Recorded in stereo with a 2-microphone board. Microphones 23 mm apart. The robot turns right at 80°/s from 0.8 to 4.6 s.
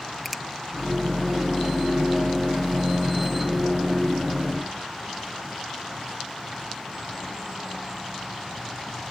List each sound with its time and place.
0.2 s a finger snap: 5° left (ahead or behind)